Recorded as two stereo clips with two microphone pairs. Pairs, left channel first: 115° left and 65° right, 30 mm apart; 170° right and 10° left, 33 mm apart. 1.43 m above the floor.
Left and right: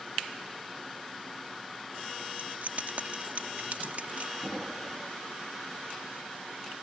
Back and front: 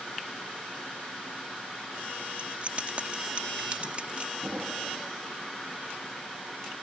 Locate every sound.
2.4 s keys jangling: 40° right
4.4 s an explosion: straight ahead